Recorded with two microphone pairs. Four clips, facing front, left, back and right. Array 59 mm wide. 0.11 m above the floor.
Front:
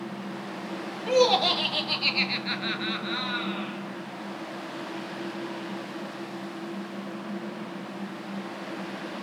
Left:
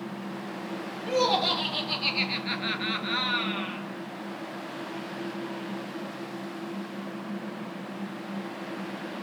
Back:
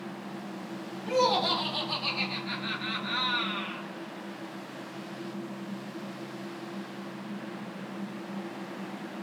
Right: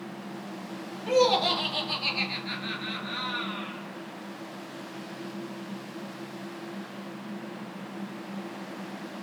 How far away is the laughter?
About 2.5 m.